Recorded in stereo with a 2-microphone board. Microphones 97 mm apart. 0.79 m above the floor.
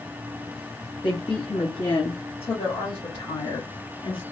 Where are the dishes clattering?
No dishes clattering in this recording.